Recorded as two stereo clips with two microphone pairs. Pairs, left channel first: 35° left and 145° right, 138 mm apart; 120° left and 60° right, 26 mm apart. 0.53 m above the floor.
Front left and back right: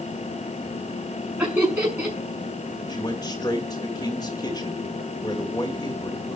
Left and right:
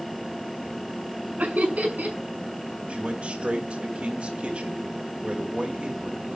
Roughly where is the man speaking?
Ahead right.